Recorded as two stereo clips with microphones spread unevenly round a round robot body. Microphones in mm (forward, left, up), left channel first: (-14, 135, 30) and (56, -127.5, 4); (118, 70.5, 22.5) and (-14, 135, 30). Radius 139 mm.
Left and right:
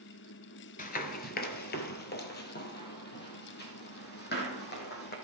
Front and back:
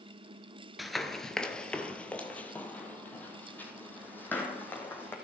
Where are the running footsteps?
70° left, 0.8 m; by 5.2 s 50° left, 3 m.